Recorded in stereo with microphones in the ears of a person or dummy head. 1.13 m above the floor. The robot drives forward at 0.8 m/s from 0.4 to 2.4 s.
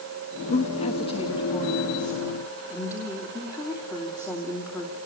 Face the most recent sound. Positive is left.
turn(degrees=20)  # may be behind; listen again after turning